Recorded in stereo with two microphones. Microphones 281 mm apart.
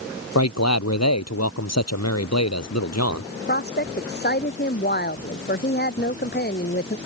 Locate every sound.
0.3 s a man speaking: 65° left (ahead or behind)
3.3 s a woman speaking: 35° left (ahead or behind)